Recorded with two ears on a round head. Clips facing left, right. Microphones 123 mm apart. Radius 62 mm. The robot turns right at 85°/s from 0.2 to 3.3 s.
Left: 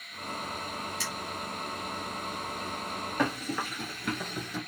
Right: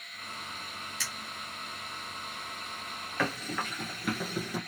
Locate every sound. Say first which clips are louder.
1.0 s a finger snap: left 5 dB; 70° right (ahead or behind), 1.6 m; by 1.1 s 75° right (ahead or behind), 1.6 m
3.2 s running footsteps: left 2 dB; 15° left (ahead or behind), 1.2 m; by 4.6 s 10° right (ahead or behind), 1.1 m